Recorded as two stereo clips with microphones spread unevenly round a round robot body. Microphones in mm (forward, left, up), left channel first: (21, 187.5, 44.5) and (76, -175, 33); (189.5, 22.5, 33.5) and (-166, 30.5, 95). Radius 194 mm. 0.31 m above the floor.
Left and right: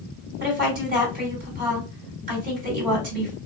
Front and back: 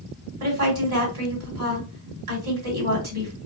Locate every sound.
0.4 s a woman speaking: 145° right, 2.0 m